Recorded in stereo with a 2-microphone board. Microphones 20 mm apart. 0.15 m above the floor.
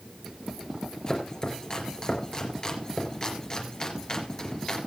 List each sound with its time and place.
1.1 s chopping: 30° left (ahead or behind), 3 m